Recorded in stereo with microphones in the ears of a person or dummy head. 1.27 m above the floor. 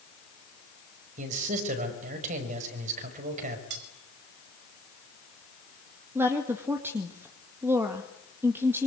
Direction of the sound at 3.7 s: 70° right (ahead or behind).